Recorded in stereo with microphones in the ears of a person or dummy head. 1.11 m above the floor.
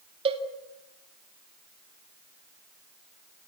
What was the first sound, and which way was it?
A cowbell, 25° right (ahead or behind).